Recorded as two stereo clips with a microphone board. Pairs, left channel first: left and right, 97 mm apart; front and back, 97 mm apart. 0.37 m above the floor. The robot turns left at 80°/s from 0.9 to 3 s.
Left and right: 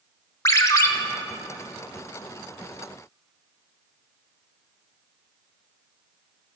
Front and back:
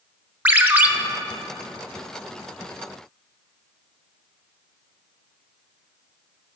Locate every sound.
0.5 s a ringtone: 120° left, 0.6 m